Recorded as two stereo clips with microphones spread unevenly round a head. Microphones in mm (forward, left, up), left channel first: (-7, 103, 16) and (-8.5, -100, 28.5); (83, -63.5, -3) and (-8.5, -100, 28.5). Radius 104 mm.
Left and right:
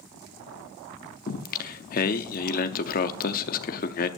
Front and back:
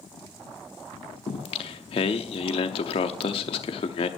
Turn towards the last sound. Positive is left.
turn(degrees=60)